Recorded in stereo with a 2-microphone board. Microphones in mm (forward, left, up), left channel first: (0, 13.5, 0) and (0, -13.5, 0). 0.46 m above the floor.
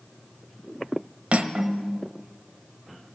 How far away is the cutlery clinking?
About 1.1 m.